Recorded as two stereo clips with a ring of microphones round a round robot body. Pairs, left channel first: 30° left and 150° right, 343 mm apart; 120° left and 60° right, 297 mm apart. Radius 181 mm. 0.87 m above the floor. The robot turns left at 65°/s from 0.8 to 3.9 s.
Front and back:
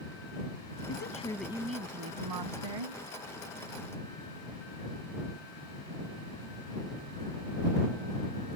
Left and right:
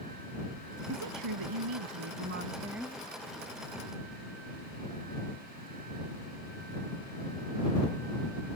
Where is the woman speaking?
25° right; by 3.0 s 160° right.